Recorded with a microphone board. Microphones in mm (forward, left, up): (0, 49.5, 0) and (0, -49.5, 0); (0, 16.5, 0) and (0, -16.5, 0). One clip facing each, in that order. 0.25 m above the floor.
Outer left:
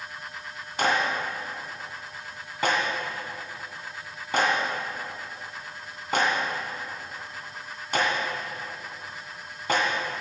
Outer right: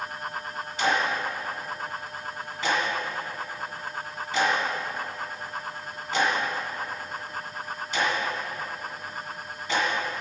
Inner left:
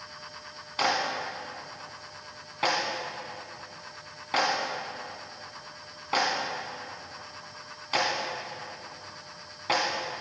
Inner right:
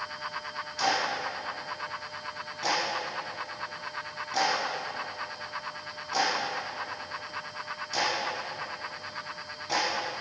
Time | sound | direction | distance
0.8 | a clap | 55° left (ahead or behind) | 2 m